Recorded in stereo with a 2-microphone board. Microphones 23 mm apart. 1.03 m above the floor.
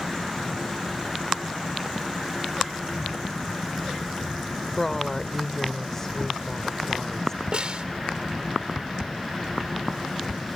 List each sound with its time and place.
4.8 s a woman speaking: 20° left (ahead or behind)
7.5 s a snare drum: 45° right (ahead or behind)